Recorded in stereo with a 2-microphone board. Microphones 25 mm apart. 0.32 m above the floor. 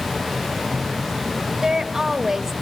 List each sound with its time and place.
1.6 s a woman speaking: 25° right (ahead or behind), 0.9 m